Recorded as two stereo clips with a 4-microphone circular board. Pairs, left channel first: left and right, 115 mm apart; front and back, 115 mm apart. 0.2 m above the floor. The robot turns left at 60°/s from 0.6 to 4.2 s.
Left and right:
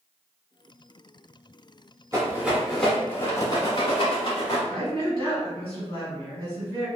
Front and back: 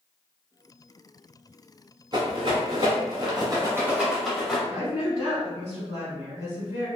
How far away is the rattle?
About 1.2 m.